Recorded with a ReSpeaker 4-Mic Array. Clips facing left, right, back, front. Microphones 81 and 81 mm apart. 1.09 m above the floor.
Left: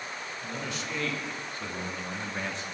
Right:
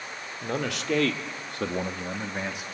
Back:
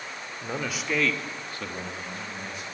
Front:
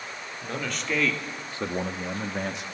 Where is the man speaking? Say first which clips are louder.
Right 8 dB, back 1 dB; 105° right, 2.5 m; by 2.6 s 10° right, 1.8 m.